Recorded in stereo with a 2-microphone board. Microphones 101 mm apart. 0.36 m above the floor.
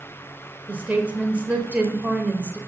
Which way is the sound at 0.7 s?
15° right (ahead or behind).